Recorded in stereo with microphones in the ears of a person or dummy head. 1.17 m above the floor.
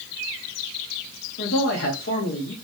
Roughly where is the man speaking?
Left.